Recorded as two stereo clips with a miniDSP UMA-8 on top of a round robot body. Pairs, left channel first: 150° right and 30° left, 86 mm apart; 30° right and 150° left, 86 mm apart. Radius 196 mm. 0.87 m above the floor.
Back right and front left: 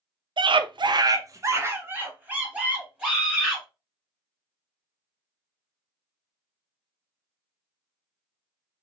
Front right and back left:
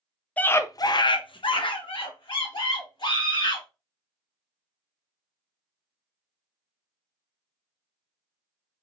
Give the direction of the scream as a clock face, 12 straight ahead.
11 o'clock.